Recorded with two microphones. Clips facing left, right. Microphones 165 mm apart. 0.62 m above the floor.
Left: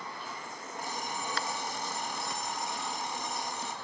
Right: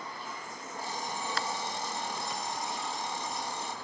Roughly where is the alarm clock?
Right.